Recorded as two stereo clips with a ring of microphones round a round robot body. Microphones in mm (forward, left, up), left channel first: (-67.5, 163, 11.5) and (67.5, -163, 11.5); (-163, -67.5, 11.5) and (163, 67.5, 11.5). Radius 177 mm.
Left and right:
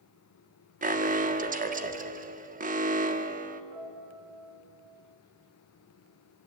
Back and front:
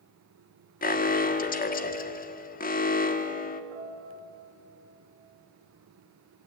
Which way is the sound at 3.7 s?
5° right.